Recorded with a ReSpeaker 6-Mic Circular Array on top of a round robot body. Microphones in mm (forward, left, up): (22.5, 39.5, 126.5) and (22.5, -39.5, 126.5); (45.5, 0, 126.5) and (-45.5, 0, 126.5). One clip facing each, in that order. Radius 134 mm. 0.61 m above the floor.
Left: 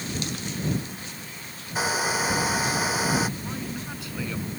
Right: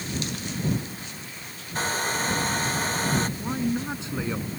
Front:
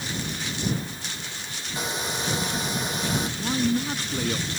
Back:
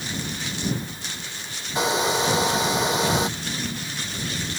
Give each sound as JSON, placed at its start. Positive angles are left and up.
{"t": 1.8, "sound": "a hair dryer", "azimuth_deg": 175}
{"t": 3.4, "sound": "a man speaking", "azimuth_deg": -25}